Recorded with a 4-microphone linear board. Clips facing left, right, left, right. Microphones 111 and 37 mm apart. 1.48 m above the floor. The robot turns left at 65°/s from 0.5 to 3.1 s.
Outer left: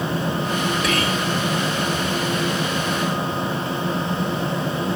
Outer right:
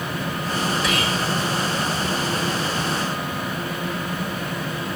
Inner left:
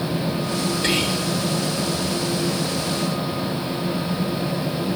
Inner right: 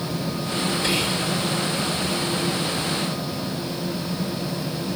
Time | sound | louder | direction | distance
0.8 | whispering | outer left 2 dB, inner left 2 dB | 50° left (ahead or behind) | 2 m